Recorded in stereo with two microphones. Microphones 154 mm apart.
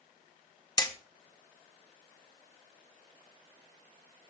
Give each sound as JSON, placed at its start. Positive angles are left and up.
{"t": 0.8, "sound": "hammering", "side_deg": 25, "distance_m": 0.8}